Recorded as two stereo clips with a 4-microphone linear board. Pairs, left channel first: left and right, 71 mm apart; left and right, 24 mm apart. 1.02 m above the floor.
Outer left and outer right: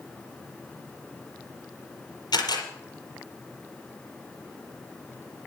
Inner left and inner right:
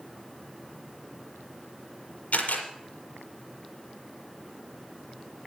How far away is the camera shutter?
About 5.5 m.